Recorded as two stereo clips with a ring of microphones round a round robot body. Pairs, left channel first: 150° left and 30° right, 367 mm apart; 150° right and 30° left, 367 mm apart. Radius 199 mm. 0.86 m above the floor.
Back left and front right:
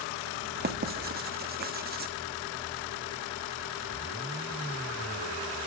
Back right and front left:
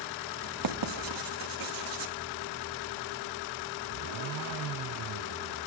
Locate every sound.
0.6 s writing: 30° left, 1.2 m